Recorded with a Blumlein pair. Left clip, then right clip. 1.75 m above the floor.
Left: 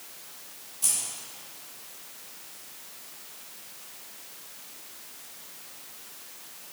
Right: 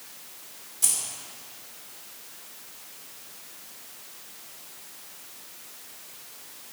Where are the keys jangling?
15° right, 2.5 m.